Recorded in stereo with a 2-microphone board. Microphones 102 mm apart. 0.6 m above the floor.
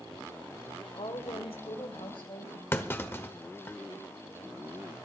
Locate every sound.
0.9 s a woman speaking: 70° left (ahead or behind), 1.7 m; by 2.6 s 55° left (ahead or behind), 2.5 m
2.7 s a clunk: 25° left (ahead or behind), 1.2 m